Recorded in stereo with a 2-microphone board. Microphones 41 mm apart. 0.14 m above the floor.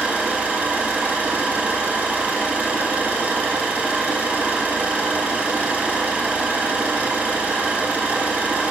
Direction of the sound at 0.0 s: 40° right (ahead or behind).